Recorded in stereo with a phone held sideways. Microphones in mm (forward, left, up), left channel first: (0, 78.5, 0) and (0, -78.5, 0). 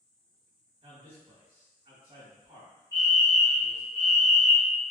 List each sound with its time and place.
0.8 s a man speaking: 35° right (ahead or behind), 1.9 m
2.9 s a fire alarm: 25° right (ahead or behind), 1.7 m